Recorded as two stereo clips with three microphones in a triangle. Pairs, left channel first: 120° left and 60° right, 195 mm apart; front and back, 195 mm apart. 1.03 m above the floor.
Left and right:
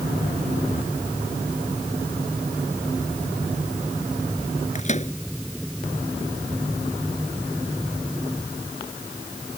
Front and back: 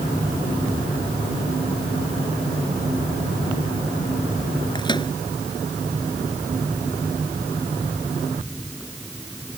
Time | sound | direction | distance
4.8 | a microwave | 65° left | ?